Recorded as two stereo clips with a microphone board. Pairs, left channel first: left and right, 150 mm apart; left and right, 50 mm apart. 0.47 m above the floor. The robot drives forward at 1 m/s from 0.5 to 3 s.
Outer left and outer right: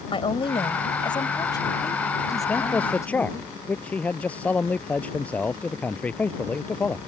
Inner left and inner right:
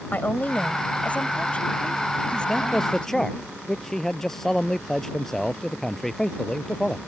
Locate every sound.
0.1 s a woman speaking: 35° left (ahead or behind); by 3.5 s 20° left (ahead or behind)
2.5 s a man speaking: 10° left (ahead or behind)